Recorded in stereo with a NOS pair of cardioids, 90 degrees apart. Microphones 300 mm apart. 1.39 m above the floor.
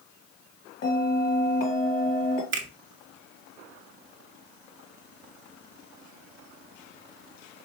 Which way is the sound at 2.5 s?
40° right.